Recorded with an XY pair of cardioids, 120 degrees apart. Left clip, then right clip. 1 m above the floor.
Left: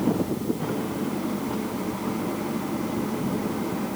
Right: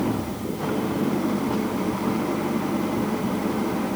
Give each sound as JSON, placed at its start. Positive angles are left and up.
{"t": 0.0, "sound": "an engine running", "azimuth_deg": -25}